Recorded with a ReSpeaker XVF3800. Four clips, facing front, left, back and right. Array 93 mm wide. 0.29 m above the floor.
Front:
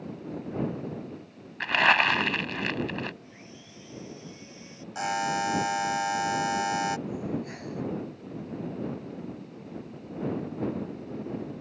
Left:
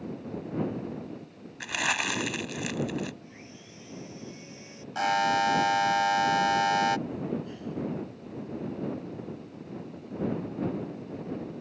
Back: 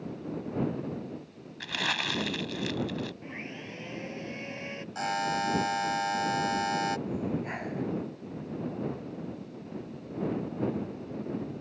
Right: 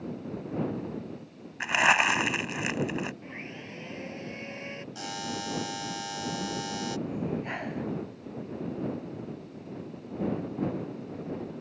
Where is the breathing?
125° right.